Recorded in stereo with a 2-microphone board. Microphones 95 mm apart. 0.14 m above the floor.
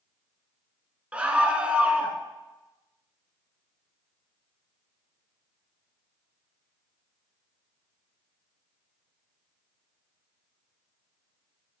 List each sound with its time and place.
1.1 s a scream: 15° right (ahead or behind), 1.3 m